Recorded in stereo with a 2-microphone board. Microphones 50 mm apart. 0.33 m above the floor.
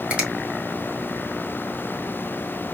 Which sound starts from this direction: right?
A finger snap, at 0.1 s.